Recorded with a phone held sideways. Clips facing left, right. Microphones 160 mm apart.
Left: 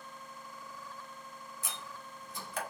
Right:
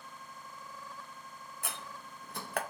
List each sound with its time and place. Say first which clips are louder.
1.6 s a door slam: right 3 dB; 65° right (ahead or behind), 0.6 m